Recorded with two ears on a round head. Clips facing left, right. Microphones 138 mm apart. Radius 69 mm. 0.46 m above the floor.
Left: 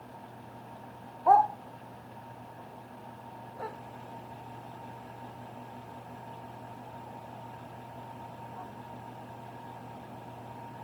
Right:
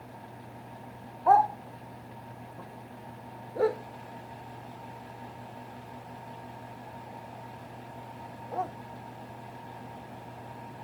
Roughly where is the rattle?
I don't hear a rattle.